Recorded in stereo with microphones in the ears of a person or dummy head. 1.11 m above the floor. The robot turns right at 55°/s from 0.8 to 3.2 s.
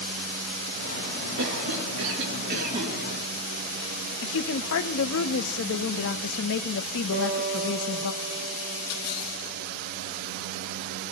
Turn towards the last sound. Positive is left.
turn(degrees=-45)  # may be behind; listen again after turning